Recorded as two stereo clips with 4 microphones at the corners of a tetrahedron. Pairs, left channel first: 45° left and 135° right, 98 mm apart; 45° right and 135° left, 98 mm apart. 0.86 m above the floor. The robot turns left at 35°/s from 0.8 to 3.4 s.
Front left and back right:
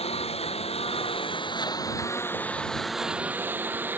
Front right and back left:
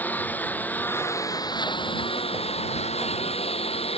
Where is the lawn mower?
30° left; by 4.0 s 65° right.